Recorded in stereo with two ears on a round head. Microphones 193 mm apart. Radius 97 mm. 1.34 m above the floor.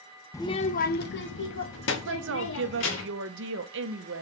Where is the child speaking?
15° left (ahead or behind), 0.6 m; by 3.0 s 60° left (ahead or behind), 2 m.